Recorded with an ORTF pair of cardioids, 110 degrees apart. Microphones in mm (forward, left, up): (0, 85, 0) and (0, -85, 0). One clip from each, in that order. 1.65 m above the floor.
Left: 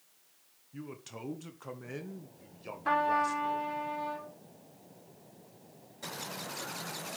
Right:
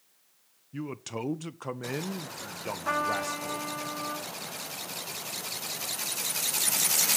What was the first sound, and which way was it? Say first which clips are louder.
A man speaking: right 9 dB; 40° right.